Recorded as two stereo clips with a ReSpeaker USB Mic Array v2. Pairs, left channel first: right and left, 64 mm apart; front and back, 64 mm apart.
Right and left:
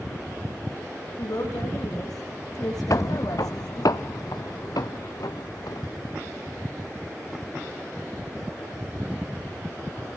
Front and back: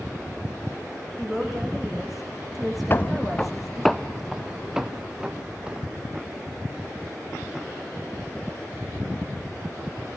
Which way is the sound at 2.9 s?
55° right.